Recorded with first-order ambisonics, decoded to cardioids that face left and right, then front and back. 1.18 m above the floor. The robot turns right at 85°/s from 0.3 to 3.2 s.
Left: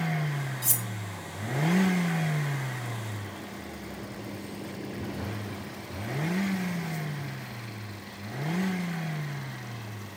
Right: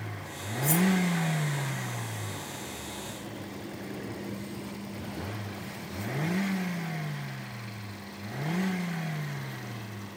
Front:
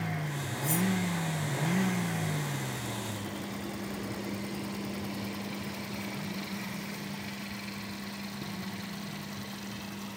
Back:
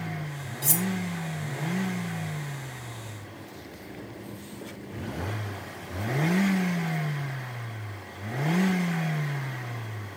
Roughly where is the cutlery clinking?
Behind left.